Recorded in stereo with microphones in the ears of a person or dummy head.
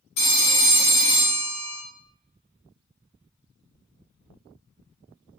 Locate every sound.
0.2 s a phone ringing: 45° left (ahead or behind), 0.5 m